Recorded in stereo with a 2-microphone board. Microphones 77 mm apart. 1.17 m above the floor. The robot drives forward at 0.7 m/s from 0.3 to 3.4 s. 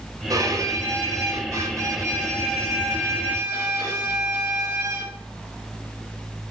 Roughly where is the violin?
Right.